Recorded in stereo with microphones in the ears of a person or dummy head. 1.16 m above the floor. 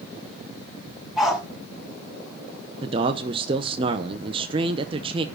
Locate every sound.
1.2 s a dog barking: centre (ahead or behind), 4.5 m
2.8 s a man speaking: 30° right (ahead or behind), 0.7 m